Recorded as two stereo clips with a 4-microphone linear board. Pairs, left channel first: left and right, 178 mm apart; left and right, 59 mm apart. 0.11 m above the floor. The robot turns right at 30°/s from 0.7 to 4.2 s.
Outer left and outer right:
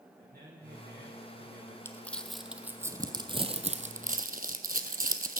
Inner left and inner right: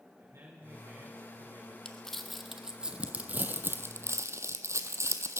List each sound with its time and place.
0.2 s a man speaking: 130° right, 5.5 m; by 1.8 s 100° right, 5.5 m
1.9 s crumpling: 15° left (ahead or behind), 0.8 m; by 5.4 s 55° right (ahead or behind), 0.8 m